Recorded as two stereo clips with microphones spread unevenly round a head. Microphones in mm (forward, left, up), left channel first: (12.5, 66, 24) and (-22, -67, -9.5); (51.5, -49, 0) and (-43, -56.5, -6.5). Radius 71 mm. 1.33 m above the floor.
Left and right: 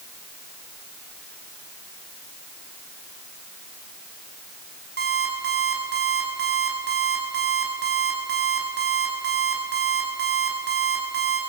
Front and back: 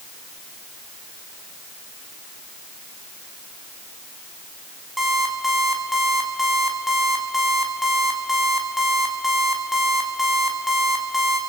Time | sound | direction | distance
5.0 | an alarm clock | 85° right | 6 m